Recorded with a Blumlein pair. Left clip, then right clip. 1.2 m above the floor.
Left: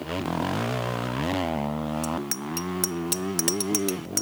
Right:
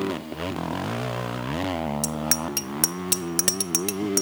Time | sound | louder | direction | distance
2.0 | a bicycle bell | right 3 dB | 25° right | ?